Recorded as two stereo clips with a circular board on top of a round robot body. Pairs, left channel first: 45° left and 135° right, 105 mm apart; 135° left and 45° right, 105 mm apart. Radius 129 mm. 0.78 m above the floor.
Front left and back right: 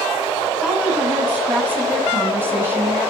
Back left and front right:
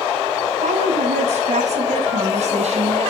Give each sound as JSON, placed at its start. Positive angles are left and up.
{"t": 0.6, "sound": "a woman speaking", "azimuth_deg": -55, "distance_m": 8.0}